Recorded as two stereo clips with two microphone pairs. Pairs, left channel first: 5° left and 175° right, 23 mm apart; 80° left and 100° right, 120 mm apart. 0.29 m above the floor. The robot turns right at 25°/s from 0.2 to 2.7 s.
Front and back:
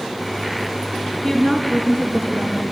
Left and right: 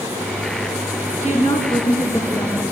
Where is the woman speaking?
105° left, 4.5 m; by 2.6 s 140° left, 4.5 m.